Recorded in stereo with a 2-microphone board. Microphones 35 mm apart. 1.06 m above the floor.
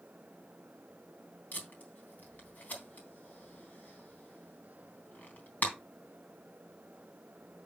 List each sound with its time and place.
1.5 s tape being pulled: 55° left (ahead or behind), 3 m